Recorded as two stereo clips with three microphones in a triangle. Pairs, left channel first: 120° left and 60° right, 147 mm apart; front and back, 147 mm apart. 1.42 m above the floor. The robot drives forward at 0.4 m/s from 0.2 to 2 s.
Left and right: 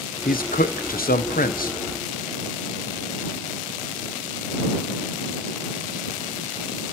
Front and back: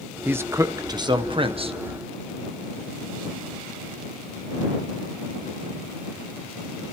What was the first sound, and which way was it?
A man speaking, 105° left.